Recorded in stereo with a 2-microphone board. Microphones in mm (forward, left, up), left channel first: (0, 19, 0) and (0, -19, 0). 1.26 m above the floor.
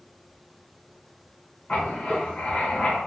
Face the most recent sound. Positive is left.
turn(degrees=35)  # may be behind; listen again after turning